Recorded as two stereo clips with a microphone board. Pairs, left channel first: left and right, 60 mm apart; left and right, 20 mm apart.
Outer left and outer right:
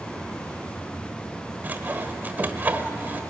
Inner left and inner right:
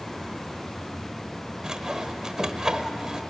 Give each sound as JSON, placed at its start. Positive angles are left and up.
{"t": 1.6, "sound": "sawing", "side_deg": -30, "distance_m": 1.5}